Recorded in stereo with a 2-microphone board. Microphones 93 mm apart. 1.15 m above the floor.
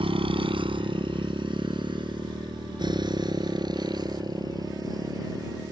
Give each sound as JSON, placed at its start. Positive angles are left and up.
{"t": 0.0, "sound": "a motorcycle", "side_deg": -75}